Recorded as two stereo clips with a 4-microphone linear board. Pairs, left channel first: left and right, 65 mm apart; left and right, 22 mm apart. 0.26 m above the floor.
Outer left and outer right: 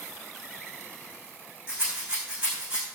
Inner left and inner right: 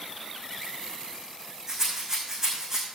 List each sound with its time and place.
1.7 s a rattle: 15° right (ahead or behind), 5 m